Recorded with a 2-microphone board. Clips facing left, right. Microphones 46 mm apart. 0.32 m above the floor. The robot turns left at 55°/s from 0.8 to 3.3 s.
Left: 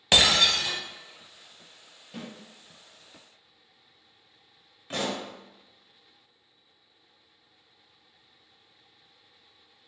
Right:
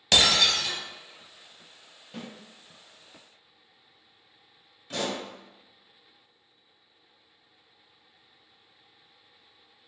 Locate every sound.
0.1 s breaking glass: 20° left (ahead or behind), 0.6 m
2.1 s a snare drum: 5° right (ahead or behind), 1.4 m; by 2.3 s 5° left (ahead or behind), 1.4 m
4.9 s a pop: 35° left (ahead or behind), 0.7 m